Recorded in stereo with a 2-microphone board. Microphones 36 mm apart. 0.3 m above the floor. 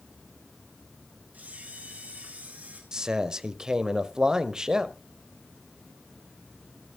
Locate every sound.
1.3 s a camera shutter: 55° right (ahead or behind), 4 m
2.9 s a man speaking: 20° right (ahead or behind), 1.0 m